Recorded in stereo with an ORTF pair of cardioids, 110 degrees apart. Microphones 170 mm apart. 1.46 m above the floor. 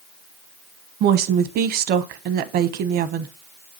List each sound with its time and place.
1.0 s a woman speaking: 65° right, 0.9 m